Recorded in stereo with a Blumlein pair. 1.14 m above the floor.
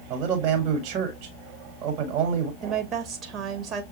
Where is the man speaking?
40° right, 1.3 m.